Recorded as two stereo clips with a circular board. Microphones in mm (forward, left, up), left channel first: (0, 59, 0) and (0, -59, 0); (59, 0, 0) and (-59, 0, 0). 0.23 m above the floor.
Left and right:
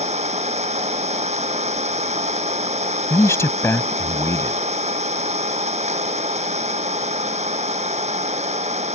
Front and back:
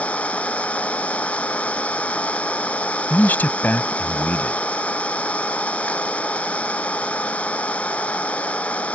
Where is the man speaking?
55° left.